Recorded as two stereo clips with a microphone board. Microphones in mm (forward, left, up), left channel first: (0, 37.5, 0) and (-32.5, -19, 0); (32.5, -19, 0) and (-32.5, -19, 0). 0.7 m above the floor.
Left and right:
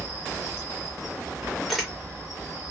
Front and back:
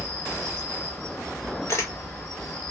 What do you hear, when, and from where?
0.0 s an insect: 80° right, 1.7 m
1.7 s a camera shutter: 30° right, 1.1 m